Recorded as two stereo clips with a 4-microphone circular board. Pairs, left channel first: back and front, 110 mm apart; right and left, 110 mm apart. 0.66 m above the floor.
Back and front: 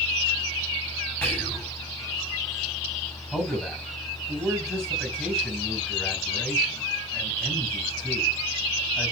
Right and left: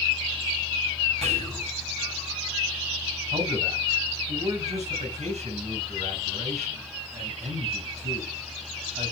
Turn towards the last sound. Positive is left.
turn(degrees=95)